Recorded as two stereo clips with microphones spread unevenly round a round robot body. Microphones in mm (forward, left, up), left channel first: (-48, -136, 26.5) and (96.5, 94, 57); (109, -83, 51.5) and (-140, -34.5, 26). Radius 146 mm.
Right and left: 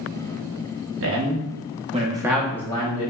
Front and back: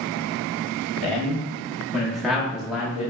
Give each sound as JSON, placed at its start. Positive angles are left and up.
{"t": 1.0, "sound": "a man speaking", "azimuth_deg": 85, "distance_m": 1.1}